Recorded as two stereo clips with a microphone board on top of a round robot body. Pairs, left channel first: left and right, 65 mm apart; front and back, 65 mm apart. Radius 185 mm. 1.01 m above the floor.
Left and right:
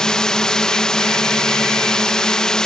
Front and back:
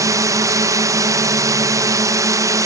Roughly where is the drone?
Behind.